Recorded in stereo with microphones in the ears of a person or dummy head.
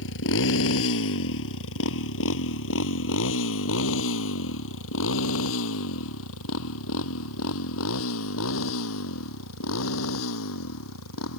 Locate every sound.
0.0 s a motorcycle: 70° left (ahead or behind); by 11.4 s 75° left (ahead or behind)